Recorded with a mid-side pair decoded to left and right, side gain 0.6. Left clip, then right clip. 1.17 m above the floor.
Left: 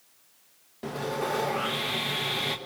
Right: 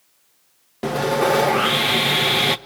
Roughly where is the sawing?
Ahead right.